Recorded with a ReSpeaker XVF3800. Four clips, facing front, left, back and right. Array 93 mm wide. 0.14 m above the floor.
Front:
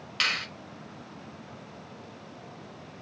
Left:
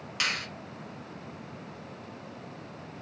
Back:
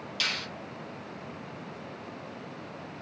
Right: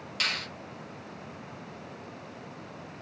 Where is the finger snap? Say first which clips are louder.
Left 1 dB, front 5 dB; 25° left, 1.2 m.